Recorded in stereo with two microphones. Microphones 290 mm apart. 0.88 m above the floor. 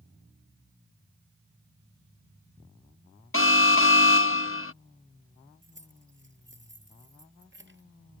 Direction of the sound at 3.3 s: 45° left (ahead or behind).